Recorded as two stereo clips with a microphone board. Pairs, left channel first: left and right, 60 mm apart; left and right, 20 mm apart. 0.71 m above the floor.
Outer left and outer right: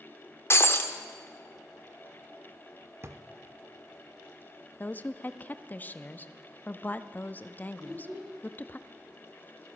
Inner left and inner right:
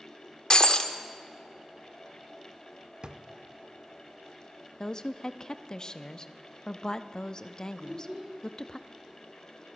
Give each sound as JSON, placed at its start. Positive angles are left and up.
{"t": 0.5, "sound": "breaking glass", "side_deg": 40, "distance_m": 0.9}
{"t": 3.0, "sound": "a drawer", "side_deg": -45, "distance_m": 0.6}
{"t": 4.8, "sound": "a woman speaking", "side_deg": 30, "distance_m": 0.6}
{"t": 7.8, "sound": "a child speaking", "side_deg": -70, "distance_m": 5.0}